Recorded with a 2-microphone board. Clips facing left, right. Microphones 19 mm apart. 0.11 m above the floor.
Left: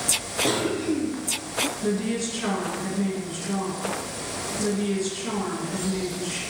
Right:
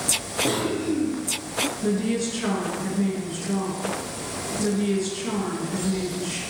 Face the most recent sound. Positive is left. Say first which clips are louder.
# right 2 dB
turn(degrees=0)  # may be behind; listen again after turning